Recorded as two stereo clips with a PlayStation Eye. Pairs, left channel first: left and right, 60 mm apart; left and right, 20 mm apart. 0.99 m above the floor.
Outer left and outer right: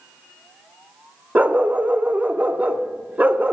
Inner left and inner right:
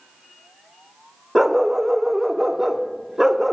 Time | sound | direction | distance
1.4 | a dog barking | 25° right (ahead or behind) | 0.6 m